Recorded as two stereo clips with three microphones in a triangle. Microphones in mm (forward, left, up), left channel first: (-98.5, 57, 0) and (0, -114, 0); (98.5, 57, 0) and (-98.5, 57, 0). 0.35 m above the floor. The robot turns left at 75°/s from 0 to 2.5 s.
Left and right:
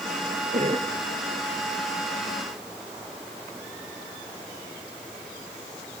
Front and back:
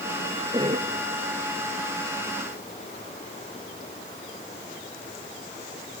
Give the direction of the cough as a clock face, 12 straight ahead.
4 o'clock.